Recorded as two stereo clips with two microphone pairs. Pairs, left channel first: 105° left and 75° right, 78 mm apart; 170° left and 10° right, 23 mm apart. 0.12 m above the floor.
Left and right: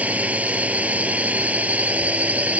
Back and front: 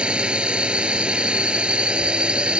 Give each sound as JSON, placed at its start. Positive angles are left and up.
{"t": 0.0, "sound": "a drone", "azimuth_deg": -5}